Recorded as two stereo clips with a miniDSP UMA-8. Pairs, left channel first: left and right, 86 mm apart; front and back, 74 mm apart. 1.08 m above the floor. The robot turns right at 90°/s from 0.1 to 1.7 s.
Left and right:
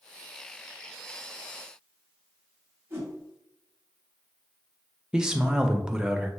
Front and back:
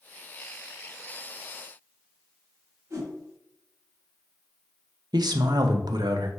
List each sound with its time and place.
2.9 s a whoosh: 145° right, 1.5 m
5.1 s a man speaking: 170° right, 0.6 m